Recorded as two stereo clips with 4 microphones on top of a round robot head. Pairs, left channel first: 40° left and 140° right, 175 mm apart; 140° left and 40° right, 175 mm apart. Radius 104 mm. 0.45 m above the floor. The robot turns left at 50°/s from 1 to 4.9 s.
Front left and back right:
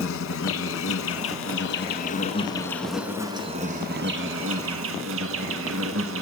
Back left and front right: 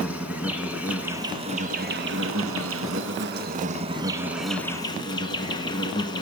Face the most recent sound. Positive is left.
turn(degrees=-150)